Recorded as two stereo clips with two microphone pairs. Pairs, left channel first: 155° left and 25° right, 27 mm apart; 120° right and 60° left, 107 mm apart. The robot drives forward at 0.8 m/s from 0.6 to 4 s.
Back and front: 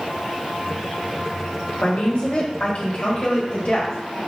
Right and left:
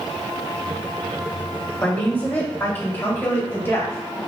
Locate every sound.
1.8 s a woman speaking: 165° left, 1.8 m; by 4.2 s 175° left, 3.5 m